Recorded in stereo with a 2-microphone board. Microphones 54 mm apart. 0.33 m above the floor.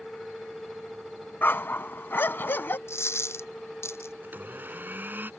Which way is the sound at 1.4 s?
45° left (ahead or behind).